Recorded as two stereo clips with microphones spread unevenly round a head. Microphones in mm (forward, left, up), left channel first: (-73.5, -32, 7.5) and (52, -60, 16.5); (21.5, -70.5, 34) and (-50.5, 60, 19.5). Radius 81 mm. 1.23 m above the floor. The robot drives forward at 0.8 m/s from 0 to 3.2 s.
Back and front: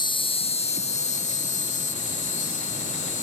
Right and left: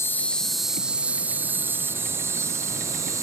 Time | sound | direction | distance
0.0 | an insect | 135° right | ?